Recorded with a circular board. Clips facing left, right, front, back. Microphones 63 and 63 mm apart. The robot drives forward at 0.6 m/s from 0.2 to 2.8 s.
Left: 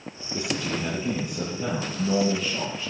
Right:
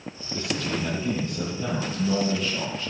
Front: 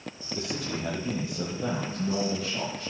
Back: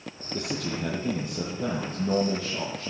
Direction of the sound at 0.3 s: 165° left.